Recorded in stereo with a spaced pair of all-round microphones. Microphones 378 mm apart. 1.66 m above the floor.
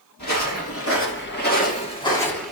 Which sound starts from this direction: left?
Footsteps, at 0.2 s.